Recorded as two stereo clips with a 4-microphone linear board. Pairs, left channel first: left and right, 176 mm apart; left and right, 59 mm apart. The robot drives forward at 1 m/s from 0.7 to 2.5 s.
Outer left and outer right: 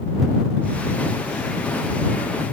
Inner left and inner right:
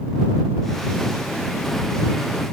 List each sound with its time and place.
Only background noise.